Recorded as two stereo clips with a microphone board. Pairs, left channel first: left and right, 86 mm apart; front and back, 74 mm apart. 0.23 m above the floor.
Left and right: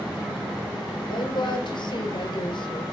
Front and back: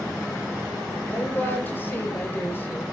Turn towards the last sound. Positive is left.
turn(degrees=65)